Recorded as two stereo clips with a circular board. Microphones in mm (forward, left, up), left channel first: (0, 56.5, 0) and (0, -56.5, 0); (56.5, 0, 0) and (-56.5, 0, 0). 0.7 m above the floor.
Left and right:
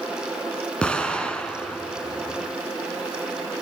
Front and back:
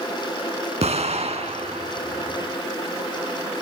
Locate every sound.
0.8 s an explosion: 170° left, 2.5 m